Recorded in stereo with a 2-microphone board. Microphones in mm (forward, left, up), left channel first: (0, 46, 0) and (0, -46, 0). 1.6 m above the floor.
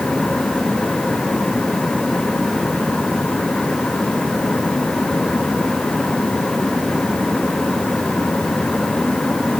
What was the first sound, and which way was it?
Only background noise.